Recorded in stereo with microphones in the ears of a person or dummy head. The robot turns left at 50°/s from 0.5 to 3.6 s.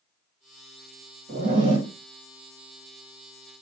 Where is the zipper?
125° right, 1.4 m; by 1.9 s 155° right, 1.4 m.